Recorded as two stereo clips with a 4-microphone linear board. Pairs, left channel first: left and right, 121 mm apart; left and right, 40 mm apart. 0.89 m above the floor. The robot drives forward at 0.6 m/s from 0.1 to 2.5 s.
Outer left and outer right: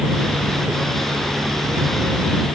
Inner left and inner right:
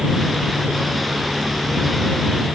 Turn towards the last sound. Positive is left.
No sound to turn to.